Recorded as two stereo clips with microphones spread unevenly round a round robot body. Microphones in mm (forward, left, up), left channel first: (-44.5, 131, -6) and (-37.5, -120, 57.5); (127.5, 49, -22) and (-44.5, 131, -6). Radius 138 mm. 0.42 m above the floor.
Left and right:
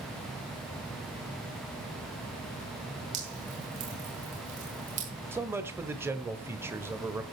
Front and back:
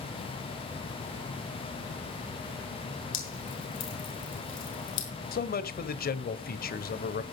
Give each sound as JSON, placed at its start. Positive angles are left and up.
{"t": 3.1, "sound": "dripping", "azimuth_deg": -20, "distance_m": 6.5}
{"t": 5.3, "sound": "a man speaking", "azimuth_deg": 0, "distance_m": 1.4}